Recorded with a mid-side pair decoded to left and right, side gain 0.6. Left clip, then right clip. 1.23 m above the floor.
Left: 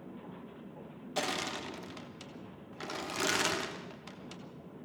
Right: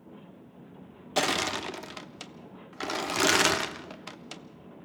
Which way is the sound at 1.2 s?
40° right.